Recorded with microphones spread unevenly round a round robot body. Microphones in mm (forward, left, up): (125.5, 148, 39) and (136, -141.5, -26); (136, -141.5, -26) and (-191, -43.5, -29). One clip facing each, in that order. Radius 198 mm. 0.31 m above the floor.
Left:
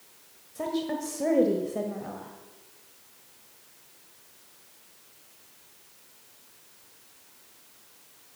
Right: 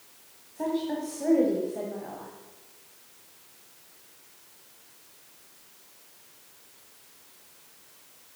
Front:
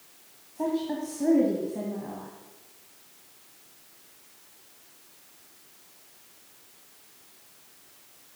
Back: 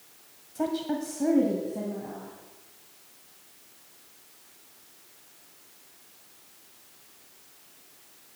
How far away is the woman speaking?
About 1.4 m.